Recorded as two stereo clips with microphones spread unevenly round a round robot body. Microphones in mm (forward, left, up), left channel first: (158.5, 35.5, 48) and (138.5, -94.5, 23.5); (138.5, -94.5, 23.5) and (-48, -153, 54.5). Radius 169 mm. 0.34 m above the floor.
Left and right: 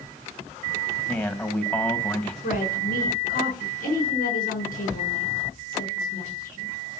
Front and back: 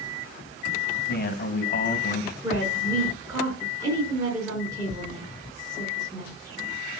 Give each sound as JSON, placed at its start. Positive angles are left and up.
{"t": 1.1, "sound": "a man speaking", "azimuth_deg": 0, "distance_m": 2.5}
{"t": 2.4, "sound": "a woman speaking", "azimuth_deg": 115, "distance_m": 5.0}